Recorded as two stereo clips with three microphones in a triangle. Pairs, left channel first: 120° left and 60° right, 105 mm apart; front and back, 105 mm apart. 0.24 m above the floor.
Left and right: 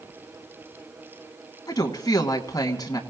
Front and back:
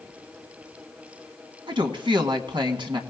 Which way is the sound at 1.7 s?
160° left.